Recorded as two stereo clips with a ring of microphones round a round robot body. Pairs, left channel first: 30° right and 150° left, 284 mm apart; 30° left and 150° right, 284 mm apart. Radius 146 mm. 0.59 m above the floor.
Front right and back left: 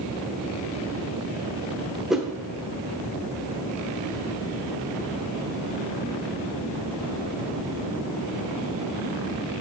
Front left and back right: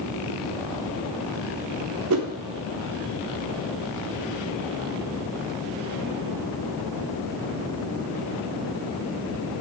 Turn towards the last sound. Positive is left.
turn(degrees=-120)